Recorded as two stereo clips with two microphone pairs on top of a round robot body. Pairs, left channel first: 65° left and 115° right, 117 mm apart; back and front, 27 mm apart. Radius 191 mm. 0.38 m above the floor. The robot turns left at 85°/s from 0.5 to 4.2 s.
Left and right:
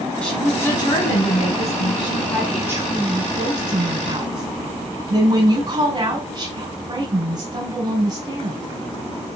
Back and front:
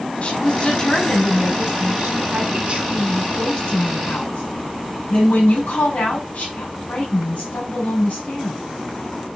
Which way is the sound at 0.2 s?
145° left.